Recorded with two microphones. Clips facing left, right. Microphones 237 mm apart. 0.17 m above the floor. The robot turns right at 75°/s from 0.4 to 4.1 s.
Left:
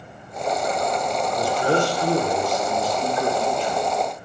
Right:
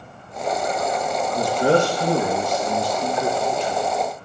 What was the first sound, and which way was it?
A man speaking, 130° right.